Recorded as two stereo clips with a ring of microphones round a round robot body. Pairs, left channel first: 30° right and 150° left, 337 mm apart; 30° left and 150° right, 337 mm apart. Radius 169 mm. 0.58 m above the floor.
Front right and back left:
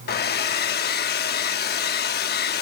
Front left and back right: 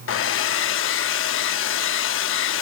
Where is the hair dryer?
10° left.